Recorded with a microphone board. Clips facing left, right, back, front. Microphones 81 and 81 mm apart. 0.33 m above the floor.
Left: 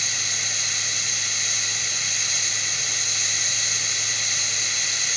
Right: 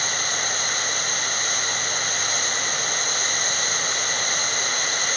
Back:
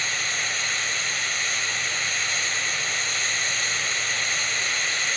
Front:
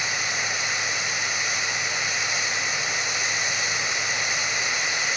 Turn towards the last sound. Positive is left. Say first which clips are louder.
# right 6 dB, front 1 dB
turn(degrees=-75)